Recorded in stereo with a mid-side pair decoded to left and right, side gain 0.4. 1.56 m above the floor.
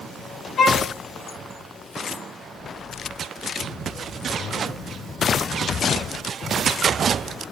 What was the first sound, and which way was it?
A violin, 60° left.